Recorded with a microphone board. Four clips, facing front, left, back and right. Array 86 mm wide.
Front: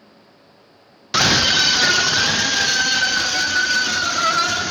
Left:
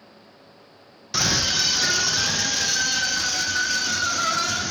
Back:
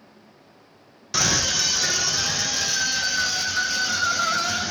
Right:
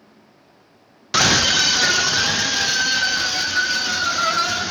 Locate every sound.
1.1 s a scream: 50° right, 0.5 m; by 4.7 s 20° right, 2.5 m